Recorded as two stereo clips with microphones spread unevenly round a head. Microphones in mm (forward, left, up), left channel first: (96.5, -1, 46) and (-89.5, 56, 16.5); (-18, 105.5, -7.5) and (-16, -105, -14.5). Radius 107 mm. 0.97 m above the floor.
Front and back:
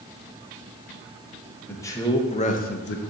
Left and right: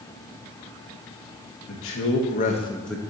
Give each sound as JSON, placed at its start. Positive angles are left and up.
{"t": 1.7, "sound": "a man speaking", "azimuth_deg": 65, "distance_m": 1.2}